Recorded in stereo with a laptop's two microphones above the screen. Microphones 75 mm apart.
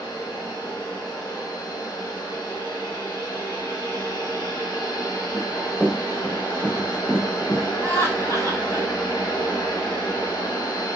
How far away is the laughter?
About 3 m.